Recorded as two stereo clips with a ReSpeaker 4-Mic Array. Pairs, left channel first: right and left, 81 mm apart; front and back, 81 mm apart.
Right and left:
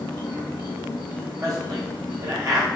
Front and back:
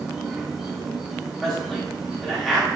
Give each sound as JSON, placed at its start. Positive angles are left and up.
{"t": 0.0, "sound": "an insect", "azimuth_deg": -95, "distance_m": 0.7}
{"t": 1.4, "sound": "a man speaking", "azimuth_deg": 85, "distance_m": 0.9}